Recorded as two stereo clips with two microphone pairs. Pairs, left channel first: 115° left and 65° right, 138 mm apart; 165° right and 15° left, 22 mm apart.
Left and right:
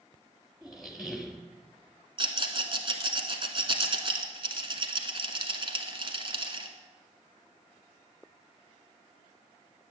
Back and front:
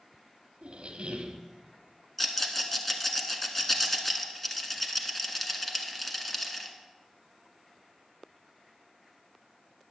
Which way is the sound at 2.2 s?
90° right.